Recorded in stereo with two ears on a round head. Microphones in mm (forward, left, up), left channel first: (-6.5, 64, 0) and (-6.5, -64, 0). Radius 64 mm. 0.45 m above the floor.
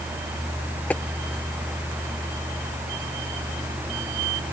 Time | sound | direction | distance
0.9 | tapping | 10° left (ahead or behind) | ?